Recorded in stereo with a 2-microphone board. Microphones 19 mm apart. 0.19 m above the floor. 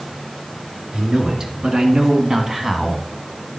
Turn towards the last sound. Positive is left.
turn(degrees=-5)  # may be behind; listen again after turning